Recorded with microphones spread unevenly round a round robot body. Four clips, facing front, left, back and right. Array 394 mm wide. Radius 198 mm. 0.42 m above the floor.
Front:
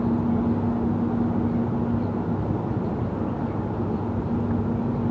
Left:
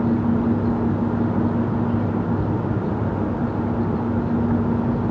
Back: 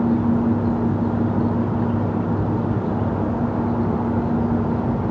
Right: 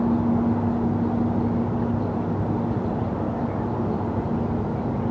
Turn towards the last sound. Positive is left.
No sound to turn to.